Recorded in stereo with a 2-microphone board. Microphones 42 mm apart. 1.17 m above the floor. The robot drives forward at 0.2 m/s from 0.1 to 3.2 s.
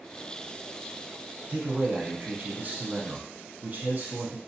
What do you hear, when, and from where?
1.5 s a man speaking: 30° right (ahead or behind), 0.9 m; by 4.4 s 45° right (ahead or behind), 0.7 m